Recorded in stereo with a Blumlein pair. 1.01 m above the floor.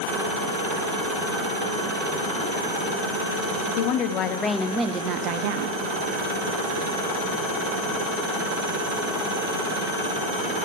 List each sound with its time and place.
3.8 s a woman speaking: 50° left, 0.9 m; by 5.8 s 50° right, 1.1 m